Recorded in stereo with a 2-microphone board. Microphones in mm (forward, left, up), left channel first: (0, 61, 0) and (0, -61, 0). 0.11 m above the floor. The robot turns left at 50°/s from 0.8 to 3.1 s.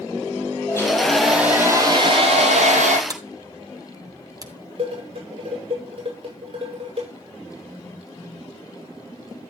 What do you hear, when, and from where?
0.7 s a hair dryer: 20° left, 7 m; by 3.0 s 90° right, 7 m
3.1 s a sliding door: 30° right (ahead or behind), 1.3 m
4.8 s dishes clattering: 50° right (ahead or behind), 9 m